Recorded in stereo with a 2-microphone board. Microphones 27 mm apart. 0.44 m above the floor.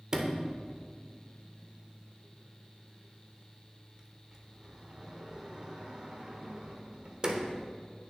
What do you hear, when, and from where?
0.1 s a sliding door: 30° right (ahead or behind), 1.2 m